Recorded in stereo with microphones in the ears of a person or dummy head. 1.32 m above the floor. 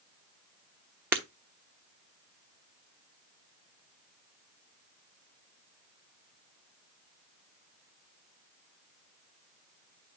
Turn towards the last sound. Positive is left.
turn(degrees=-10)  # may be behind; listen again after turning